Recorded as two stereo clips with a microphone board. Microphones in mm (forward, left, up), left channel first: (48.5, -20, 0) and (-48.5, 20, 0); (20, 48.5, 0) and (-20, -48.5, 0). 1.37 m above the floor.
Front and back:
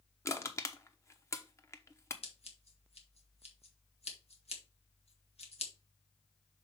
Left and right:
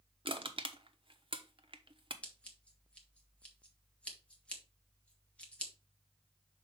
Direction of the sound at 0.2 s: 85° right.